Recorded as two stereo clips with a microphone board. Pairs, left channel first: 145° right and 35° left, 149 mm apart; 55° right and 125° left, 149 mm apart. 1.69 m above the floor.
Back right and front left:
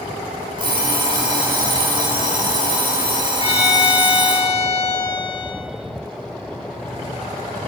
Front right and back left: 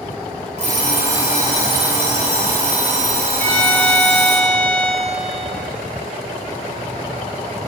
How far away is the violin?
About 4.5 m.